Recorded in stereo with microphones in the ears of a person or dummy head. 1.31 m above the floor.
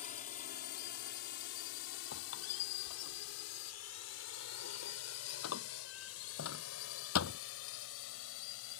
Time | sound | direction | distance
0.0 | a drone | 40° left (ahead or behind) | ?
2.1 | a squeak | 75° left (ahead or behind) | ?